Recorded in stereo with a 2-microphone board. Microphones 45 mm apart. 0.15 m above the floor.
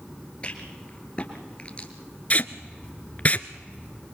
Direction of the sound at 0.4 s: 30° left (ahead or behind).